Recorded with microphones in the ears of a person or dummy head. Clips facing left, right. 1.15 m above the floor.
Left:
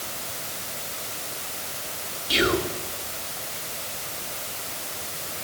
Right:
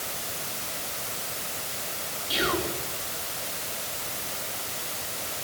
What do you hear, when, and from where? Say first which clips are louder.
2.3 s whispering: left 5 dB; 35° left (ahead or behind), 3 m